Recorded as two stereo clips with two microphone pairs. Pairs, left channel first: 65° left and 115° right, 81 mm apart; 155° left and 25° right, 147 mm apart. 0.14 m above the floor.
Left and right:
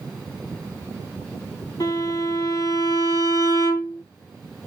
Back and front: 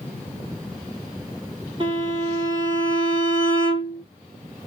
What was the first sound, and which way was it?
A violin, 25° left.